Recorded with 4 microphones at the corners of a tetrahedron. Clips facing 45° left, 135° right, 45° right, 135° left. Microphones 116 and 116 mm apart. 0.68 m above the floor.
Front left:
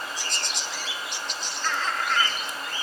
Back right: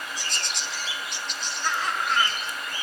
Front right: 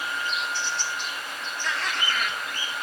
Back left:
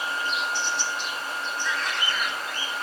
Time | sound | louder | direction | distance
1.6 | laughter | back right 1 dB, front right 2 dB | 55° right | 2.5 m